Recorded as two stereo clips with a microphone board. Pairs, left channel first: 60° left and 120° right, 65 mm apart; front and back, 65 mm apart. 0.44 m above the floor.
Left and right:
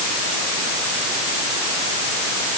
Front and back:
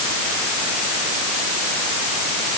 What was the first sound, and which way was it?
Only background noise.